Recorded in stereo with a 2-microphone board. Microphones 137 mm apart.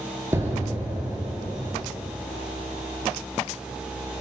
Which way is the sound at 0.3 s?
20° right (ahead or behind).